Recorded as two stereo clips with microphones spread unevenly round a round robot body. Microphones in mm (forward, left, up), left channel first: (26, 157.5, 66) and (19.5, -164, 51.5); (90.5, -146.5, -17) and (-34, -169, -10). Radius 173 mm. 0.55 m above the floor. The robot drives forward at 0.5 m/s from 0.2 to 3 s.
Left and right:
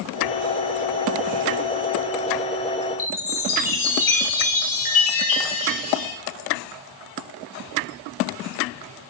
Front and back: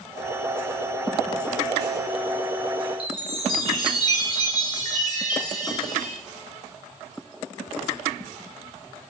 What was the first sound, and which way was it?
A chime, 95° left.